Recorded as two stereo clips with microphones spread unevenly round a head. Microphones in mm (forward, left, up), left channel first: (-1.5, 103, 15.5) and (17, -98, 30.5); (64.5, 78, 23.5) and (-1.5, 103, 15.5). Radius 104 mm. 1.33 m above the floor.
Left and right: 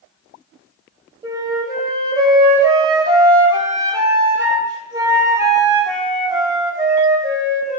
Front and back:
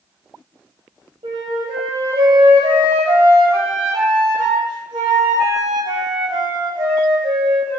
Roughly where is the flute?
Behind.